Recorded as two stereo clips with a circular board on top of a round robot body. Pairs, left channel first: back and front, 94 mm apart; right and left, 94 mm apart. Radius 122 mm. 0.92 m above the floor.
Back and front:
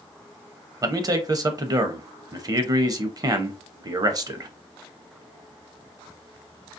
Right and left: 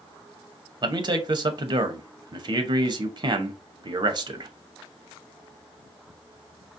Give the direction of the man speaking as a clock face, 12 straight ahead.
10 o'clock.